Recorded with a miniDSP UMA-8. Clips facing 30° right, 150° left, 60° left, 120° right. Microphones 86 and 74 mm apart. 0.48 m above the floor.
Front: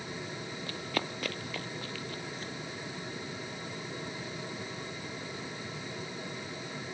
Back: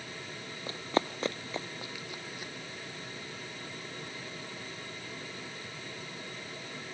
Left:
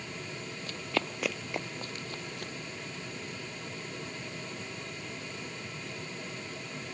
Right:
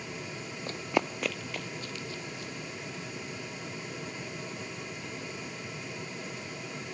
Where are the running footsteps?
155° right, 0.6 m; by 2.5 s 70° left, 0.9 m.